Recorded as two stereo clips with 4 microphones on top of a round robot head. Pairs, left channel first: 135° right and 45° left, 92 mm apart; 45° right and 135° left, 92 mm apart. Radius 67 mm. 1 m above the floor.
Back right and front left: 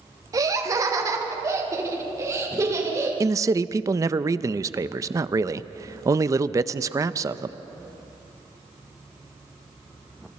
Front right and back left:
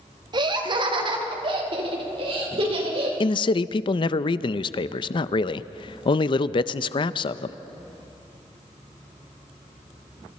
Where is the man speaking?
10° right, 0.6 m.